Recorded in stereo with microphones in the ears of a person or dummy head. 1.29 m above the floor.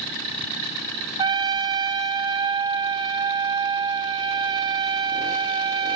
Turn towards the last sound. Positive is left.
turn(degrees=-15)  # may be behind; listen again after turning